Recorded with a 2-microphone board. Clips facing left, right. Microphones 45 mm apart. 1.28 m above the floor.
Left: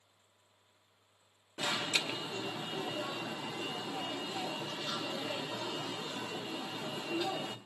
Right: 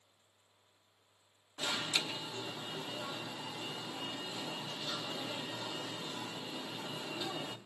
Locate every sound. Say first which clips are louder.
1.6 s an alarm: left 2 dB; 55° left (ahead or behind), 1.1 m